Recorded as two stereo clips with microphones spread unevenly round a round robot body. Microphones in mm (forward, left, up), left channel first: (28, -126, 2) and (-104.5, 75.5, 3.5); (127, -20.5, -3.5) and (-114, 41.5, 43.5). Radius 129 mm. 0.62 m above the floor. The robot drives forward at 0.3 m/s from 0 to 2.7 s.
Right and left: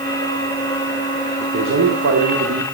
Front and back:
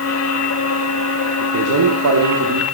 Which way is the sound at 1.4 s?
145° left.